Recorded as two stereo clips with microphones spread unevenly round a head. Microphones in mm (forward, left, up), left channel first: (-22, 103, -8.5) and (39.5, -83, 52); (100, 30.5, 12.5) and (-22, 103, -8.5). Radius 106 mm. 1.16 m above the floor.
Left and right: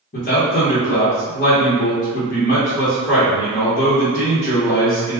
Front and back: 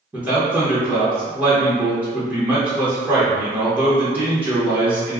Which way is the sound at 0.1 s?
75° left.